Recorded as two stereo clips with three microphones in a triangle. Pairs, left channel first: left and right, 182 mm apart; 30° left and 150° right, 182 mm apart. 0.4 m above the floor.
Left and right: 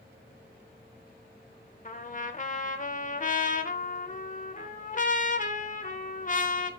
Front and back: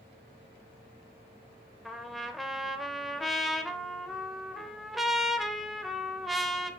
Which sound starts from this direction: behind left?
A trumpet, at 1.9 s.